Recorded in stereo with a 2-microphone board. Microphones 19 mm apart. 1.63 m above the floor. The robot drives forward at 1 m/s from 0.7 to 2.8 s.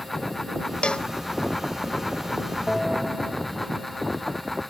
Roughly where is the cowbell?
Left.